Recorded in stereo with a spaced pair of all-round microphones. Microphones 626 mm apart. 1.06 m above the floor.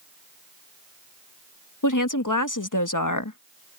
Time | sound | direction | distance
1.8 | a woman speaking | 30° left (ahead or behind) | ?